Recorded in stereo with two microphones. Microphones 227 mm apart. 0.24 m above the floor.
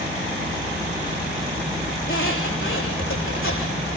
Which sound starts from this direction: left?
A squeak, at 2.0 s.